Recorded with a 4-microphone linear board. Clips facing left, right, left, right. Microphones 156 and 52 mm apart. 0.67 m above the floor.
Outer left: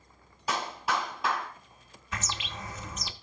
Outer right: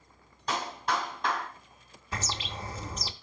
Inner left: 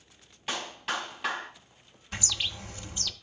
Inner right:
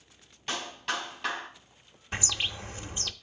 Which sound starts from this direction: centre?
A clap, at 0.5 s.